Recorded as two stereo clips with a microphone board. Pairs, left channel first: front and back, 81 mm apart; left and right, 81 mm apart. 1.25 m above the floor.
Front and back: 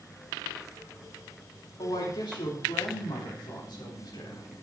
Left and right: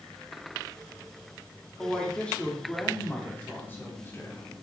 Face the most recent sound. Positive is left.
turn(degrees=30)